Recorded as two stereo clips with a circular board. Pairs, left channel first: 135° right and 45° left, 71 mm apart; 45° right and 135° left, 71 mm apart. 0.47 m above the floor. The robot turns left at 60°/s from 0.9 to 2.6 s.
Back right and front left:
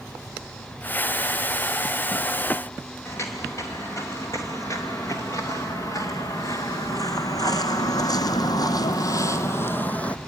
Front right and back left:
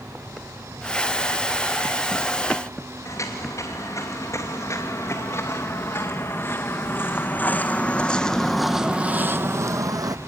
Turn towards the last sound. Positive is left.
turn(degrees=150)